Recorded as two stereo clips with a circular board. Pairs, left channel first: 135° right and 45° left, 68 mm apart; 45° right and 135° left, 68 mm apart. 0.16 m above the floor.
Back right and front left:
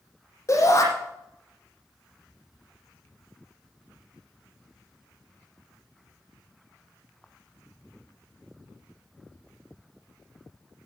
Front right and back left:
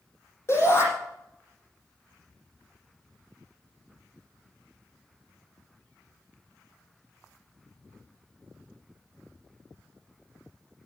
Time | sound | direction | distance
0.5 | a shout | 95° right | 7 m